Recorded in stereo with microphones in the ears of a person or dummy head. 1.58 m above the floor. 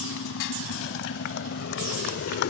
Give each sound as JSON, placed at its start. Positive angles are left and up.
{"t": 0.0, "sound": "a motorcycle", "side_deg": 65}